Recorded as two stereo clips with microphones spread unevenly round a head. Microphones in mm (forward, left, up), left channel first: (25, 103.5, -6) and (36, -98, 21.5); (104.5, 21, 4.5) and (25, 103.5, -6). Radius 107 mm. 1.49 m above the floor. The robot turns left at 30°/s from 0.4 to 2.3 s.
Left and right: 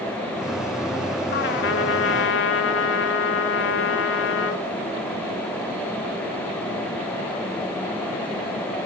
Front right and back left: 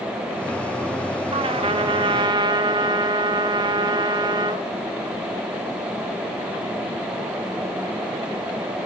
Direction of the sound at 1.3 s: 125° left.